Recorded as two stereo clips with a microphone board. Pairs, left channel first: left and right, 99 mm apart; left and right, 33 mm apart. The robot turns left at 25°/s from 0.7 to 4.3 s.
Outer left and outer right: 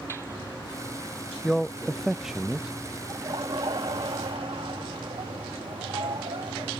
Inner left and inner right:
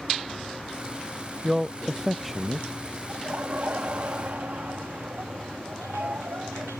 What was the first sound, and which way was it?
A man speaking, 5° left (ahead or behind).